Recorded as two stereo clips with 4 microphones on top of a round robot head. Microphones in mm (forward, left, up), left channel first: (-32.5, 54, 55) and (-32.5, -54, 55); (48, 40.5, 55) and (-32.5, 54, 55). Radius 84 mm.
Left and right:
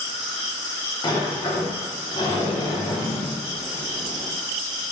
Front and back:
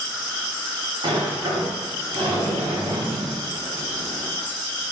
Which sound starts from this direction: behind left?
A sliding door, at 1.0 s.